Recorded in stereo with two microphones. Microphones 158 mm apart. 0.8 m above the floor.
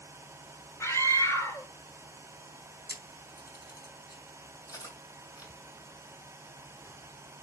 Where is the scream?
15° left (ahead or behind), 3 m.